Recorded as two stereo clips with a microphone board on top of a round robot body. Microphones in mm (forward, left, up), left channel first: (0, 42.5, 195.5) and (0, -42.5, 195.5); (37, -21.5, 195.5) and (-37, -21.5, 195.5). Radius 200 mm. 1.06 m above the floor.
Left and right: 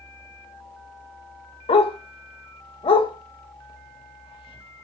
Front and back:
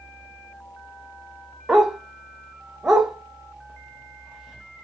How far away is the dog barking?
About 1.3 m.